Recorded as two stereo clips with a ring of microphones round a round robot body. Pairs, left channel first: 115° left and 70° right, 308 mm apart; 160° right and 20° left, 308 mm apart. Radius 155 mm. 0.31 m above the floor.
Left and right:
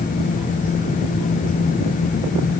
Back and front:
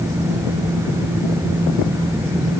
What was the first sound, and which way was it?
Only background noise.